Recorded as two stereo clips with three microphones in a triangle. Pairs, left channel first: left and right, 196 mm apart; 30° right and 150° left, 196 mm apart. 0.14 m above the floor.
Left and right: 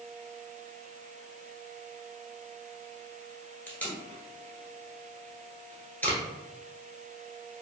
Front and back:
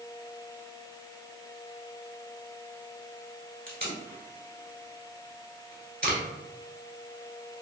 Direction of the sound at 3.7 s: 170° left.